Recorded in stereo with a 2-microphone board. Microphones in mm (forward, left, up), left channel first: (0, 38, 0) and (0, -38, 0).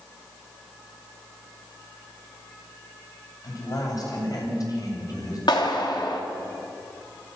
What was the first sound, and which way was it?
A man speaking, 55° left (ahead or behind).